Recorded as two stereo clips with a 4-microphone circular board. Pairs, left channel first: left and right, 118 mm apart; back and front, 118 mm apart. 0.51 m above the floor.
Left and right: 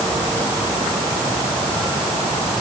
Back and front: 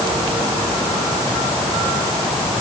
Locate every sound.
Only background noise.